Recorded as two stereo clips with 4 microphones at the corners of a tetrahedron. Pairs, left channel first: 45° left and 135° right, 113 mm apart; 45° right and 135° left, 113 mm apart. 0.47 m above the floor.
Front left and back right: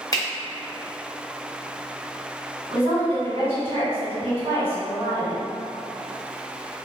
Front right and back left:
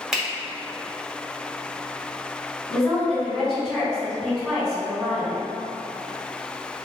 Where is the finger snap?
55° left, 0.8 m.